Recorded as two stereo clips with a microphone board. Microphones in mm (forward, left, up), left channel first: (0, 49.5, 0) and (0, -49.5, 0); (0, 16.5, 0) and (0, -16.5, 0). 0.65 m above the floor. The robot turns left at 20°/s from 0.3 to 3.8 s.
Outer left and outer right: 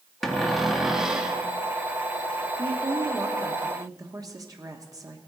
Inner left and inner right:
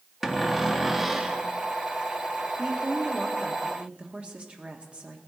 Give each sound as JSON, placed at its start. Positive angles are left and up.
{"t": 0.2, "sound": "a cupboard door", "side_deg": 0, "distance_m": 1.1}
{"t": 2.6, "sound": "a woman speaking", "side_deg": -45, "distance_m": 1.3}